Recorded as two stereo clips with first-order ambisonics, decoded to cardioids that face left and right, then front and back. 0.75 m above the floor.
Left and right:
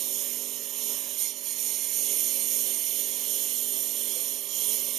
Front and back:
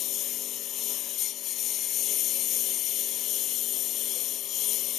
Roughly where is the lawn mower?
Ahead right.